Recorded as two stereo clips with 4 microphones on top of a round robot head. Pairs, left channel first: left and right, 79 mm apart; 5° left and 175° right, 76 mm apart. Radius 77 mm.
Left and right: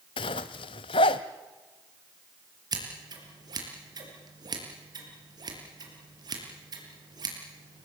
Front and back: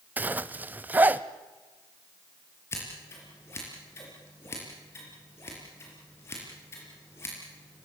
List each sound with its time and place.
0.2 s a zipper: 120° left, 0.8 m
2.7 s scissors: 55° right, 5 m